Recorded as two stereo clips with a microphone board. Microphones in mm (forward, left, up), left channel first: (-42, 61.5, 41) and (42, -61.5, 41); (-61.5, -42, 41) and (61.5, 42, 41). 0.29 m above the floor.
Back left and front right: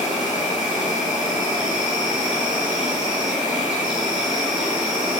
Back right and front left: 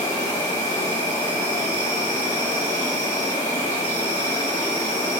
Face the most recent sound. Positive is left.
turn(degrees=-135)